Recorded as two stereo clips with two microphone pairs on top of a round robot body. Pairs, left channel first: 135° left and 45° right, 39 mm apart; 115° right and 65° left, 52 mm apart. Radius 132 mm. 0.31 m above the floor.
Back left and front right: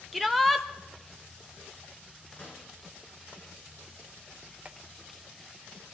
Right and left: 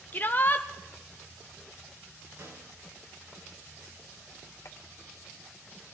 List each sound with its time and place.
0.1 s a shout: 125° right, 0.9 m
2.4 s a snare drum: 80° left, 4.5 m
4.7 s a clap: 100° right, 1.7 m